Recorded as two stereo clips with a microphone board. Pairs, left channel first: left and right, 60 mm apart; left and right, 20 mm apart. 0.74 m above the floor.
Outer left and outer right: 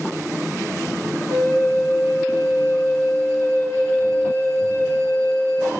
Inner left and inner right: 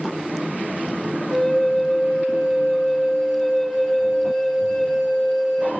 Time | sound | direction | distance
1.3 | a flute | 40° left (ahead or behind) | 9 m